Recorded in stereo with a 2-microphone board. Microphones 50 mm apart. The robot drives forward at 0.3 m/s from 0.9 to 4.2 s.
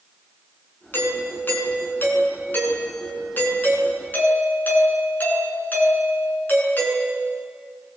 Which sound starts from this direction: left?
A doorbell, at 0.9 s.